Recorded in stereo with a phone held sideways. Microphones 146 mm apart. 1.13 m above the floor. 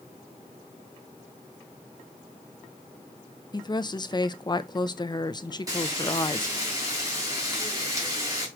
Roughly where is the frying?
Right.